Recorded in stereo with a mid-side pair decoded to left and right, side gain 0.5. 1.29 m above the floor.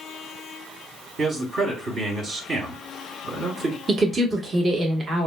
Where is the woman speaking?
30° right, 1.3 m.